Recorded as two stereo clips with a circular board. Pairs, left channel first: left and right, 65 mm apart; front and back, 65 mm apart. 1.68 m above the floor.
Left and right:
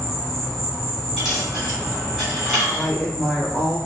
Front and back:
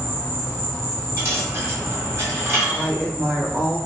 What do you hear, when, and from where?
0.0 s an insect: 175° left, 1.8 m
1.2 s a dropped coin: 165° right, 1.7 m
2.7 s a woman speaking: 120° left, 0.6 m